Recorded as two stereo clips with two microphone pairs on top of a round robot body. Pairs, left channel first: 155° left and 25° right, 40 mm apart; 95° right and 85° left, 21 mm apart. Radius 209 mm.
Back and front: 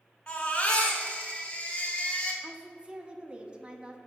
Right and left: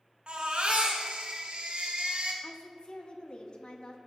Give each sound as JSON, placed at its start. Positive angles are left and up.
{"t": 0.3, "sound": "a baby crying", "azimuth_deg": 105, "distance_m": 1.3}
{"t": 2.4, "sound": "a woman speaking", "azimuth_deg": -85, "distance_m": 1.1}